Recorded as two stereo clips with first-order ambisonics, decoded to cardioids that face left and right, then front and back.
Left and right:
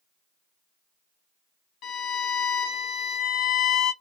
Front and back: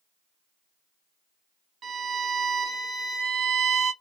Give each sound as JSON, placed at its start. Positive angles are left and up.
{"t": 1.8, "sound": "a violin", "azimuth_deg": 125, "distance_m": 0.6}